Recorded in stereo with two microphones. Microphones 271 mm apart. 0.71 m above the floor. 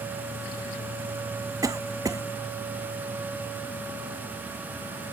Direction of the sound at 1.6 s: 15° right (ahead or behind).